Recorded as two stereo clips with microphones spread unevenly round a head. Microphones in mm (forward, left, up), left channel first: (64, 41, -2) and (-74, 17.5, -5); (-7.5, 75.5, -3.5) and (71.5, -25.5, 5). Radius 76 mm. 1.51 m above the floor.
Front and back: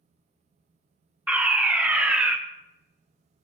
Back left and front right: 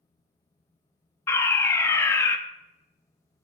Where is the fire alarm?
125° left, 0.5 m.